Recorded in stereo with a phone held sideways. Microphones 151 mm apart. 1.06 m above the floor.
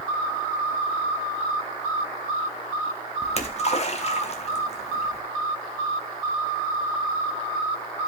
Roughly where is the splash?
Left.